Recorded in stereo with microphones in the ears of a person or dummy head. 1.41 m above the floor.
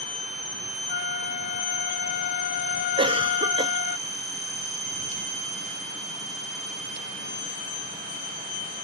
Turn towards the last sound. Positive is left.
turn(degrees=-25)  # may be behind; listen again after turning